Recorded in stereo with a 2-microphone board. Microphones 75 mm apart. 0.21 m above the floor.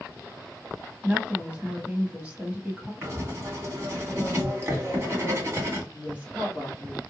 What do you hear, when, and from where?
1.0 s a woman speaking: 20° right (ahead or behind), 1.1 m
3.0 s writing: 35° right (ahead or behind), 1.5 m
5.9 s a woman speaking: 20° right (ahead or behind), 1.3 m